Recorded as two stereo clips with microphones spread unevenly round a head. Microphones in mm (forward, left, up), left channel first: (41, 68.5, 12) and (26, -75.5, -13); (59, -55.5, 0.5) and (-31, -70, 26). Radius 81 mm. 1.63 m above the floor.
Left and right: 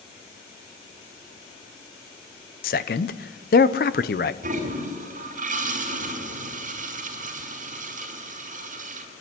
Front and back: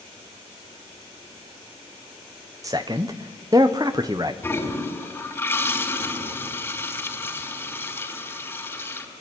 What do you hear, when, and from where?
2.6 s a man speaking: 120° left, 0.8 m
4.4 s a toilet flushing: 60° right, 4.5 m